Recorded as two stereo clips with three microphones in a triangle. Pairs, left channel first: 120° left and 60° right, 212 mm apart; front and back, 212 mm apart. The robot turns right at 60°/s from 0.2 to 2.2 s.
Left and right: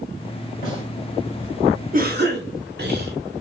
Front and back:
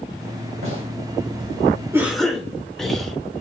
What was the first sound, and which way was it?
A gunshot, 165° left.